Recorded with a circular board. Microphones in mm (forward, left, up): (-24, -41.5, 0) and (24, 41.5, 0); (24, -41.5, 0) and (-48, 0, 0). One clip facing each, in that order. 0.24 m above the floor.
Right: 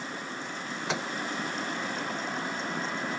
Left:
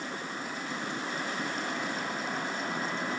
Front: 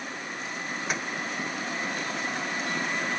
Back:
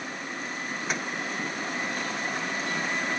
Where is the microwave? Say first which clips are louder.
Right 4 dB, even; 120° right.